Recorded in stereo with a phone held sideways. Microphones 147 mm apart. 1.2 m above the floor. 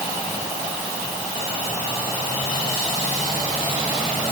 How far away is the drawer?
I don't hear a drawer.